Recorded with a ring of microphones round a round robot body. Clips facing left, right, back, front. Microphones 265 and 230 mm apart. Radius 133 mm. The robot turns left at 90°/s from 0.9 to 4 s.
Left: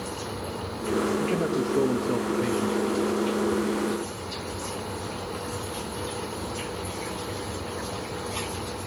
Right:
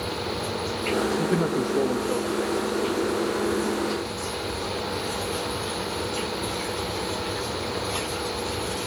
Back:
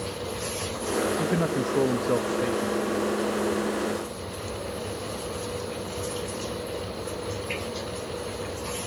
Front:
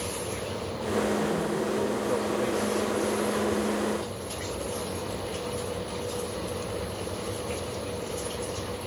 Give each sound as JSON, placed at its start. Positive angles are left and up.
{"t": 1.2, "sound": "a man speaking", "azimuth_deg": -140, "distance_m": 0.9}